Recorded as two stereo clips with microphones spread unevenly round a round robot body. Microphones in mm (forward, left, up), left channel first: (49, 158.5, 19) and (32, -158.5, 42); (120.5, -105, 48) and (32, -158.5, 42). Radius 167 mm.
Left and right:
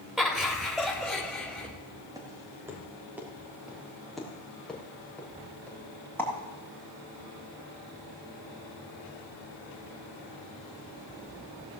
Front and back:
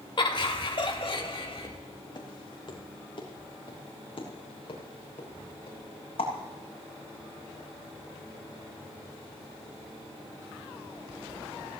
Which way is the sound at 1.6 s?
20° right.